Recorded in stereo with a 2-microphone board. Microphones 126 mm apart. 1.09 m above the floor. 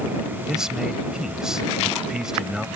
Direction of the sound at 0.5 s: 5° right (ahead or behind).